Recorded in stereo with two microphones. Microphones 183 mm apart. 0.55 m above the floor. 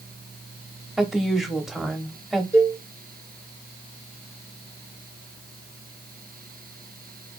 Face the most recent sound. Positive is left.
turn(degrees=-15)  # may be behind; listen again after turning